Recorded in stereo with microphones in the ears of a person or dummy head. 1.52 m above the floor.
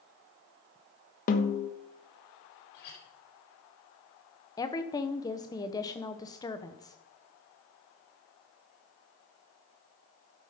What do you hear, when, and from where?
1.3 s a snare drum: 45° left (ahead or behind), 1.2 m
2.7 s a clink: 55° left (ahead or behind), 4.5 m
4.6 s a woman speaking: 15° left (ahead or behind), 1.1 m